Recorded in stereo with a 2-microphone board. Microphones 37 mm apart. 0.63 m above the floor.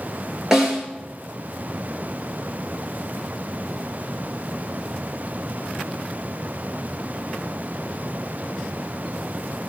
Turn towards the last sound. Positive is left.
turn(degrees=-15)  # may be behind; listen again after turning